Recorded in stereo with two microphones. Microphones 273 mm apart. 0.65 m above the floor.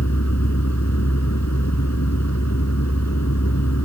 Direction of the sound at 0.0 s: 75° left (ahead or behind).